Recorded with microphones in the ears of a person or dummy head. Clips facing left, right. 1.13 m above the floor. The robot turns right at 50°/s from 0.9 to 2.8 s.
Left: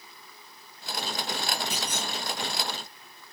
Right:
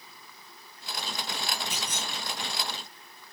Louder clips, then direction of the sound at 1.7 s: Left 3 dB; 60° left (ahead or behind).